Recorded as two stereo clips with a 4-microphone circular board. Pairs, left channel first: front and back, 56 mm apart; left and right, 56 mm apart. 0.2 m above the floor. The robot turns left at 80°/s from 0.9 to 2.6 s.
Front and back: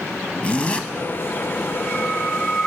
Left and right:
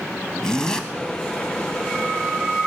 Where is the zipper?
30° left, 0.7 m.